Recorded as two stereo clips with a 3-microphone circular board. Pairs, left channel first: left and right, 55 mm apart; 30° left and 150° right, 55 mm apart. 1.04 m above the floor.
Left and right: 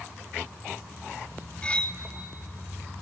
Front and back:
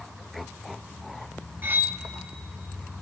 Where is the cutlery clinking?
160° left, 0.9 m.